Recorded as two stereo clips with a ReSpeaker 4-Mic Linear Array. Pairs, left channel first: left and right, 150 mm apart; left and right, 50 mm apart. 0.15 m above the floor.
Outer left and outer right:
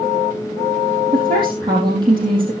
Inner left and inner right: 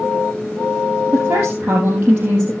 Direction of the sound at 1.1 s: 30° right (ahead or behind).